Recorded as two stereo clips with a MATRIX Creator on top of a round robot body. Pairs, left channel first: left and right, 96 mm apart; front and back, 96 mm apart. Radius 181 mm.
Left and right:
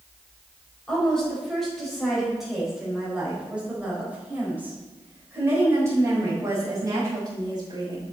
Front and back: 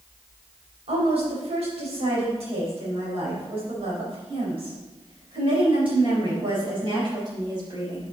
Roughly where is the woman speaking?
Behind.